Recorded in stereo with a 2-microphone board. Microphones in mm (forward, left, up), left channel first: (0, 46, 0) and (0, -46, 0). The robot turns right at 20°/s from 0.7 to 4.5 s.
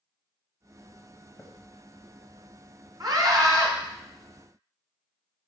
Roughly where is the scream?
Right.